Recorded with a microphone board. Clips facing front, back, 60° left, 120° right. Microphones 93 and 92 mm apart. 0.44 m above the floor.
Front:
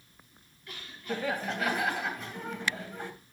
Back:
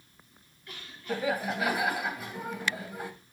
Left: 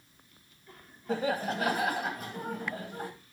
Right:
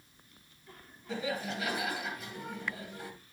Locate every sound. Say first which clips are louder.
1.1 s laughter: back 2 dB, left 5 dB; 100° left, 2.5 m